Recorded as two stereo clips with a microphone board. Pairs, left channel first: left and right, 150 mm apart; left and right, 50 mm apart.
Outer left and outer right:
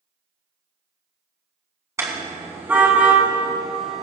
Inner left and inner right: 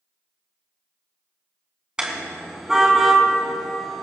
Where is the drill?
I don't hear a drill.